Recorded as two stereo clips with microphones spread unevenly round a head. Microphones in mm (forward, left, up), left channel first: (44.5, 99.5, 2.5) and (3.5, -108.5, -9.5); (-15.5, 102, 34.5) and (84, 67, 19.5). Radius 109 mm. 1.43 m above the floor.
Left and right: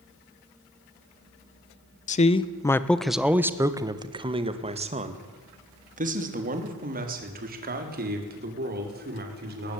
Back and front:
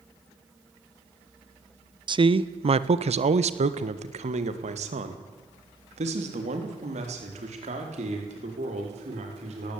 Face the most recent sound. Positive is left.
turn(degrees=-55)